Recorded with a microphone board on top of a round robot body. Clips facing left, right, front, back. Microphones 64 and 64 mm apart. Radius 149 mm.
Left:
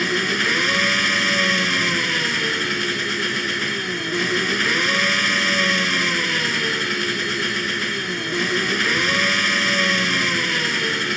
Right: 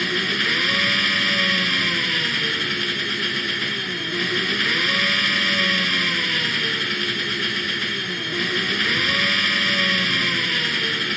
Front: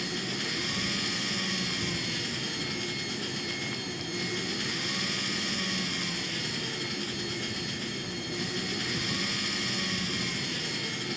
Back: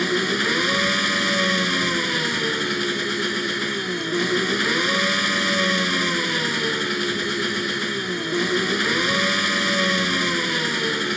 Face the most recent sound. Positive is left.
turn(degrees=170)